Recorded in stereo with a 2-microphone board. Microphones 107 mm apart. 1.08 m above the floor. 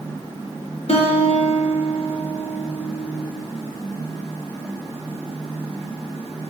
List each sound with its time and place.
0.9 s a guitar: 65° left (ahead or behind), 3 m